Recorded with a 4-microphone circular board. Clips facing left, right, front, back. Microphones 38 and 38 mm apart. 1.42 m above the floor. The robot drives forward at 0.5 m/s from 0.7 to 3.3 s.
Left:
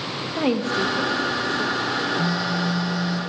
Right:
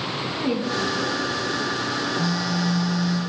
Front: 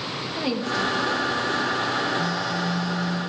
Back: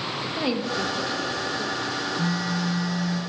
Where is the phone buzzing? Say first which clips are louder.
Left 1 dB, front 1 dB; 150° left, 1.1 m; by 3.2 s 160° left, 1.5 m.